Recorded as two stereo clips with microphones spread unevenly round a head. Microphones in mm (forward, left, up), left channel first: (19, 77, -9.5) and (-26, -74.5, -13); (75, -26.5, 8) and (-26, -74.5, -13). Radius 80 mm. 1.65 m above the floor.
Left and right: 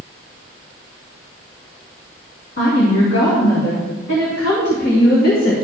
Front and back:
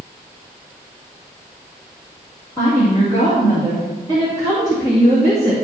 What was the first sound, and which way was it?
A woman speaking, 85° left.